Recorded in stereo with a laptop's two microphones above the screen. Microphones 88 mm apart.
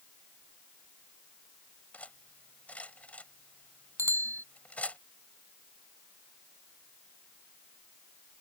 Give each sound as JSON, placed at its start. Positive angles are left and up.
{"t": 1.9, "sound": "cutlery clinking", "side_deg": 15}
{"t": 4.0, "sound": "a bicycle bell", "side_deg": -35}